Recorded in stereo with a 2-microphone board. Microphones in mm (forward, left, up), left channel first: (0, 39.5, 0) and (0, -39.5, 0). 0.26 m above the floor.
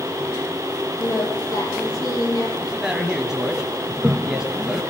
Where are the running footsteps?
I don't hear running footsteps.